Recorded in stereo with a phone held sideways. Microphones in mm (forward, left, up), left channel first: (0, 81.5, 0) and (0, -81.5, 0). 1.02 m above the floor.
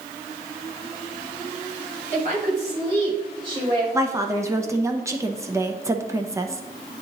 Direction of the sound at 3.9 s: 20° right (ahead or behind).